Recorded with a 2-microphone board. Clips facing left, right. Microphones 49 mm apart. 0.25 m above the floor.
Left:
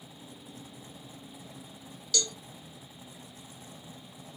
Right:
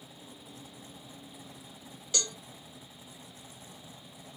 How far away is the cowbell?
About 0.7 m.